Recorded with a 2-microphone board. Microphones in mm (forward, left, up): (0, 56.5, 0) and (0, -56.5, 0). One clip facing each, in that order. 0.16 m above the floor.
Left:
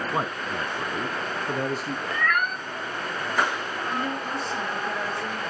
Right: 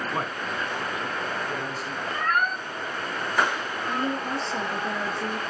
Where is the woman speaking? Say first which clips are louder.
Right 2 dB; 30° right (ahead or behind), 3 m.